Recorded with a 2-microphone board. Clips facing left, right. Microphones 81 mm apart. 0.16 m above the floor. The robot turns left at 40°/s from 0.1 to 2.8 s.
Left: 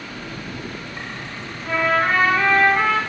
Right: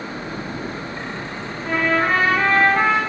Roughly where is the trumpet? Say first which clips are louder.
Even; right.